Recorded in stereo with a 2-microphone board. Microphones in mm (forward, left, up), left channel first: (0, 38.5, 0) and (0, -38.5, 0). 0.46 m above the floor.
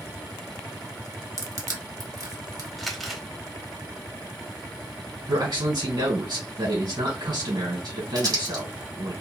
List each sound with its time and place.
1.4 s crushing: 50° right (ahead or behind), 1.1 m
2.8 s crumpling: centre (ahead or behind), 1.3 m
5.3 s a man speaking: 75° right (ahead or behind), 2.5 m
8.2 s crumpling: 65° right (ahead or behind), 2.5 m